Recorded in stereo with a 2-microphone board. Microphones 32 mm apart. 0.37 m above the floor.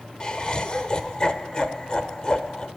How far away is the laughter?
About 0.9 m.